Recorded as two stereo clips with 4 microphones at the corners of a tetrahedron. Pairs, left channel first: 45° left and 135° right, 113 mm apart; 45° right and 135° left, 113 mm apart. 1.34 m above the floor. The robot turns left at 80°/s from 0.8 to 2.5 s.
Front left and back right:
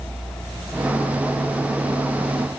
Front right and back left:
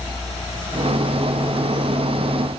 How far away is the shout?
No shout in this recording.